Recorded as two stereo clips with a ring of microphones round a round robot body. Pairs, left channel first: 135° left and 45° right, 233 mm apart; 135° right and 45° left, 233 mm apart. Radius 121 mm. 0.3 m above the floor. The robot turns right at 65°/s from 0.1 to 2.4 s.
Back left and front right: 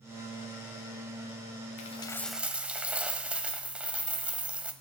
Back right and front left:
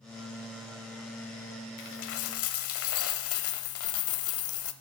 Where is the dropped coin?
170° right, 0.7 m; by 4.7 s 130° right, 0.7 m.